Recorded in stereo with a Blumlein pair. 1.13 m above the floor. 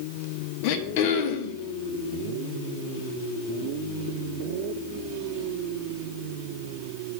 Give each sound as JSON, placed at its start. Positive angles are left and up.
{"t": 0.6, "sound": "throat clearing", "azimuth_deg": 45, "distance_m": 0.7}